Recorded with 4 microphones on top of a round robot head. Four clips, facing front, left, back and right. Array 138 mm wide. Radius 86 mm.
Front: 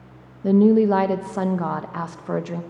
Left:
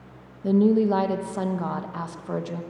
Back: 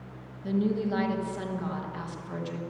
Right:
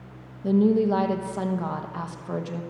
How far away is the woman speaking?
About 1.2 m.